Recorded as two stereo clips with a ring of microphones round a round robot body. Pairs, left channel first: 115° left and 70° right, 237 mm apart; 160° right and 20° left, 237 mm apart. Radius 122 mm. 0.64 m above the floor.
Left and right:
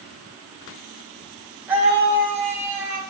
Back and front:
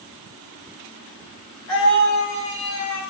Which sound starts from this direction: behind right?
A scream, at 1.7 s.